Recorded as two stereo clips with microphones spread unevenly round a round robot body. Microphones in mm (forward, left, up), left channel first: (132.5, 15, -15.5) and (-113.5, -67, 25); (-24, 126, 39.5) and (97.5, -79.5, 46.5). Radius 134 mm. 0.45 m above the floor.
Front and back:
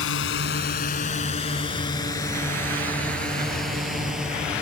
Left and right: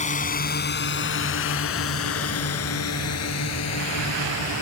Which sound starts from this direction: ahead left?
A drone, at 0.0 s.